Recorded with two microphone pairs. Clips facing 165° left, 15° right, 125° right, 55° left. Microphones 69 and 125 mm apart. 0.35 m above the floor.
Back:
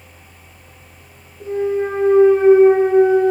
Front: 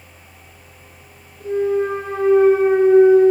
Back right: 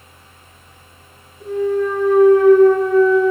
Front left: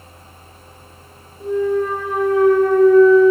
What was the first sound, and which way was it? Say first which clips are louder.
A clunk: front 1 dB, even; 105° left.